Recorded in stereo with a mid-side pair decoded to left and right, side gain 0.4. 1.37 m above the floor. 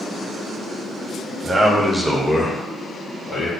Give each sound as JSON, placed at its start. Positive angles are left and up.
{"t": 1.4, "sound": "a man speaking", "azimuth_deg": -35, "distance_m": 0.9}